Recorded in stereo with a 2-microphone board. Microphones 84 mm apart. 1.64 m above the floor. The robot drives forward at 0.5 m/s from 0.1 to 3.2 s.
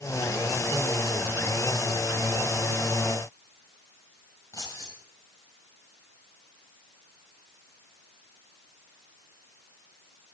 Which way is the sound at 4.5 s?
40° left (ahead or behind).